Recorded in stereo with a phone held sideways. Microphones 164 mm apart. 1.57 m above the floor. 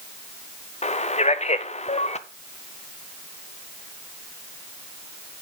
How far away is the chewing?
I don't hear chewing.